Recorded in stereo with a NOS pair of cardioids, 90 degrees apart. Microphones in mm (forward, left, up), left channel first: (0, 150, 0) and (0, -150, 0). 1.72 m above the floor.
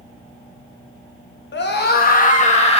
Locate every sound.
1.5 s a scream: 40° left, 2.5 m; by 2.8 s 20° left, 3 m